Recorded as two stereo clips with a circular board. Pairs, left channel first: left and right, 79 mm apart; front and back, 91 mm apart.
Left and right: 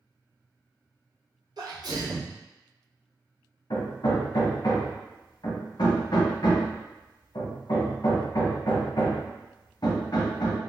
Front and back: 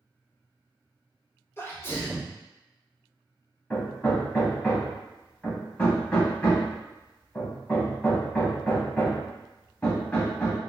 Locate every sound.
1.6 s a sneeze: 60° right, 0.7 m
3.7 s hammering: 70° left, 0.7 m